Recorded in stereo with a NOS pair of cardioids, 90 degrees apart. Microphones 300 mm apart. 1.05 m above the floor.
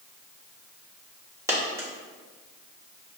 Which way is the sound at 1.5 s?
10° right.